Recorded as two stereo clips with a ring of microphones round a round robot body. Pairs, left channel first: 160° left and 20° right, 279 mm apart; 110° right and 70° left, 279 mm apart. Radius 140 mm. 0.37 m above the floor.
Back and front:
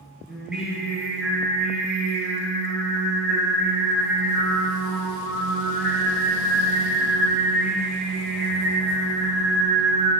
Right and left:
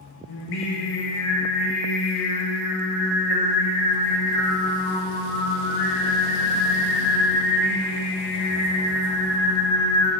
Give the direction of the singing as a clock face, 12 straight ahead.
4 o'clock.